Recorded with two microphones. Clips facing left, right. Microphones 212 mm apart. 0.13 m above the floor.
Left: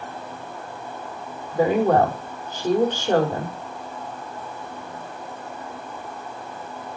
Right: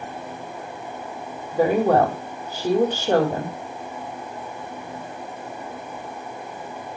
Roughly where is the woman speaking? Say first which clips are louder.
Even; centre.